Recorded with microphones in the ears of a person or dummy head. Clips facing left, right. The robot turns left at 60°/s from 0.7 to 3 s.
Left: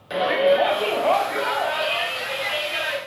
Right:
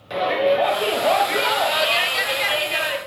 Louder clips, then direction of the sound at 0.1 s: Left 1 dB; 5° right.